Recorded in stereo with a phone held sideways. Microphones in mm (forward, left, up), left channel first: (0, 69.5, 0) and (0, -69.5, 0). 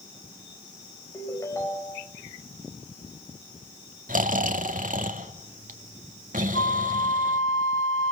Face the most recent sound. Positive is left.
turn(degrees=75)  # may be behind; listen again after turning